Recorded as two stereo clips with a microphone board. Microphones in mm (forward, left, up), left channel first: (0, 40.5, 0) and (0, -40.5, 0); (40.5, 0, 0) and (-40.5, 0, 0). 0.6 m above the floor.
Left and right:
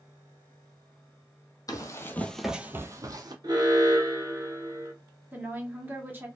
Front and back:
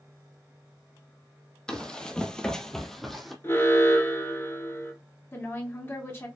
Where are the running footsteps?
75° left, 0.8 m; by 3.3 s 90° right, 0.9 m.